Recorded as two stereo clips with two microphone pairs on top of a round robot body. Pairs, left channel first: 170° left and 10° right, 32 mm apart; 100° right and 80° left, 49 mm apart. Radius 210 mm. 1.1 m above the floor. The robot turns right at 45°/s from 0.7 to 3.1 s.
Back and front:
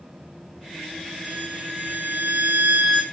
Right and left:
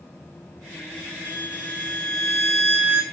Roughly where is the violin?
Ahead right.